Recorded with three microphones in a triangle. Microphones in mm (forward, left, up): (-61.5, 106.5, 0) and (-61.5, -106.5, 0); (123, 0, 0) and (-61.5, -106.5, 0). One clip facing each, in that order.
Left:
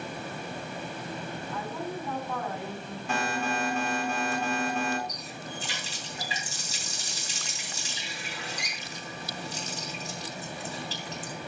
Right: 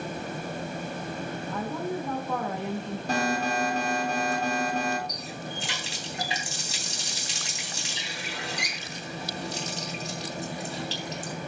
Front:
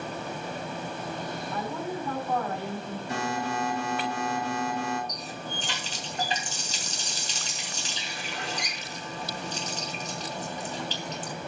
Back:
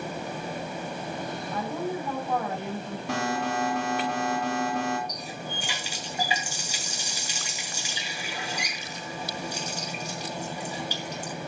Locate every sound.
1.5 s a woman speaking: 80° right, 4.5 m
3.1 s an alarm: 140° right, 4.5 m
5.1 s a running tap: 70° right, 3 m